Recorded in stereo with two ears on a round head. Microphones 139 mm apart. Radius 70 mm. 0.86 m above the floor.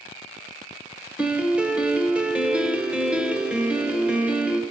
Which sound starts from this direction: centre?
A piano, at 1.2 s.